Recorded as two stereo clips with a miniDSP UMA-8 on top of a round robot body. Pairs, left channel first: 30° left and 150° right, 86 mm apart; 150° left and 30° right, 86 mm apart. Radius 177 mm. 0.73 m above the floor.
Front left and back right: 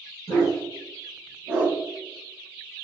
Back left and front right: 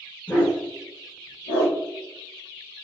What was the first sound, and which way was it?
A dog barking, 75° left.